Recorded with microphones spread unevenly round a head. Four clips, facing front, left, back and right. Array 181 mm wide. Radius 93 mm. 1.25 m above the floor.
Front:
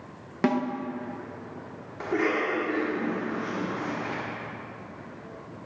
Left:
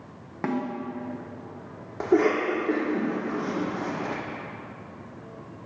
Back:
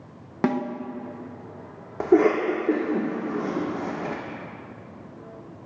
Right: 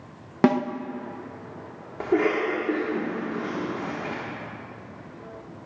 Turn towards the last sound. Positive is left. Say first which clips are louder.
# left 1 dB, back 8 dB
turn(degrees=175)